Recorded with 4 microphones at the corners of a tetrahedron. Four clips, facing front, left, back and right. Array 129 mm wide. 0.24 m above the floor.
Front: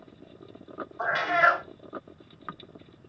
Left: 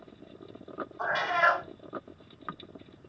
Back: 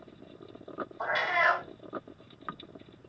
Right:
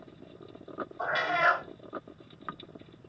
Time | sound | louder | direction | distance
1.0 | a cat meowing | left 1 dB, front 5 dB | 10° right | 1.0 m